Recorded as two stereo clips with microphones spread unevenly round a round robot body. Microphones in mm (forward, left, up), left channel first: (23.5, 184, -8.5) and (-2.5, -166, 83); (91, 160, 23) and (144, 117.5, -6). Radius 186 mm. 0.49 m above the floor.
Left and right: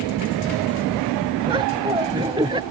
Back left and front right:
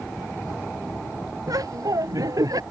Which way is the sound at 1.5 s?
20° right.